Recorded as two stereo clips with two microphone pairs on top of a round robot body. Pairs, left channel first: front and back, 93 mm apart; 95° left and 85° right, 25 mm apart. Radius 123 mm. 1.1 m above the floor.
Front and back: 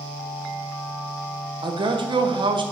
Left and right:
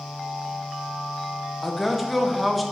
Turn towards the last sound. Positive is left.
turn(degrees=-165)